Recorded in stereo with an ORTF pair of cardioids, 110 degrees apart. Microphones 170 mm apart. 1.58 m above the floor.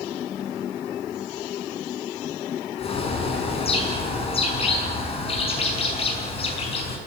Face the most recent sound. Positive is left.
turn(degrees=35)